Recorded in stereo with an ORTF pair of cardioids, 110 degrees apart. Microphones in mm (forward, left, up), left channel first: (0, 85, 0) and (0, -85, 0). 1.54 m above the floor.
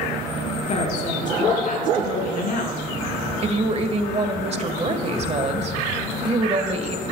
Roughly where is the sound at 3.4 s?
Ahead right.